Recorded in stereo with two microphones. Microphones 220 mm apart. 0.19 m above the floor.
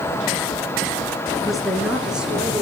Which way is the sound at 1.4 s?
Centre (ahead or behind).